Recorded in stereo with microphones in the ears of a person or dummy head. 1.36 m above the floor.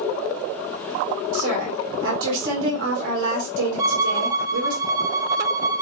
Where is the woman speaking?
85° right, 1.5 m.